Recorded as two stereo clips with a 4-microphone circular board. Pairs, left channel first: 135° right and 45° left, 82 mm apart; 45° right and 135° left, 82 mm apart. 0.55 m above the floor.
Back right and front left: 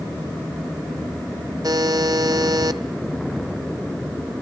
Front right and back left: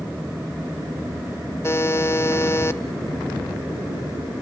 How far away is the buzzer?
About 1.0 m.